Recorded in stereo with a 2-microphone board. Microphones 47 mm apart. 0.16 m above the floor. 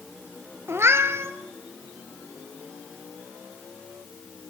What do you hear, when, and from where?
0.7 s a cat meowing: 65° right (ahead or behind), 1.6 m